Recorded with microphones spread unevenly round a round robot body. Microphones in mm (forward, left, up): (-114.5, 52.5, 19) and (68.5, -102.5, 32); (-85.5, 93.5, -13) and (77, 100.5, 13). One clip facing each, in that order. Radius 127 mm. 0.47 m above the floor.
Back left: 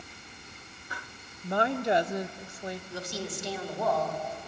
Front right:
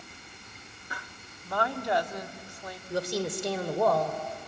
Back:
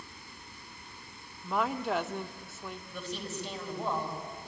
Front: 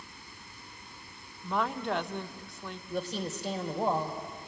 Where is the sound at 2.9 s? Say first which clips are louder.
Front right 6 dB, front 7 dB; 65° right, 2 m.